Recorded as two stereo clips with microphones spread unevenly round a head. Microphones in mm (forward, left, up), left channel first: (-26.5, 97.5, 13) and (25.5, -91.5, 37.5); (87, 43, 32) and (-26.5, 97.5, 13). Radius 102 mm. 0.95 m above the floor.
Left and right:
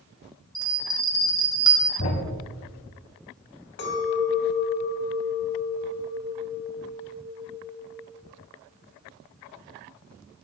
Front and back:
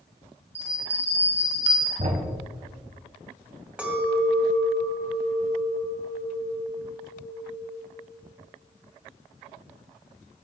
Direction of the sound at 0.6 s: 145° right.